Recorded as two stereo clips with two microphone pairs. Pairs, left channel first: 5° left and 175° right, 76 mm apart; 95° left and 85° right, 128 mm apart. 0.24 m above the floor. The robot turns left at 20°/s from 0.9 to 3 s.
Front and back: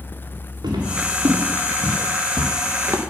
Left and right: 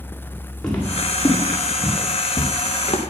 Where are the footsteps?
Straight behind, 4.5 m; by 3.0 s 130° left, 2.5 m.